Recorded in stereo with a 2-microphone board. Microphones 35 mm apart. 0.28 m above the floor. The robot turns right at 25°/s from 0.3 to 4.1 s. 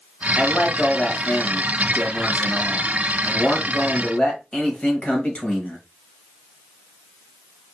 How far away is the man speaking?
About 1.1 m.